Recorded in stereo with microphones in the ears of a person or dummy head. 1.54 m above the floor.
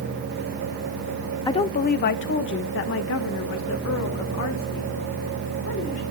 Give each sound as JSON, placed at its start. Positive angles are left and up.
{"t": 1.5, "sound": "a woman speaking", "side_deg": 20, "distance_m": 0.5}